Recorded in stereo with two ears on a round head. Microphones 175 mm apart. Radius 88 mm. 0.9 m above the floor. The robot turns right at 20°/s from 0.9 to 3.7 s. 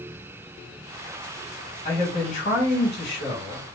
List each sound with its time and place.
1.9 s a man speaking: 35° left, 1.9 m; by 3.7 s 70° left, 1.9 m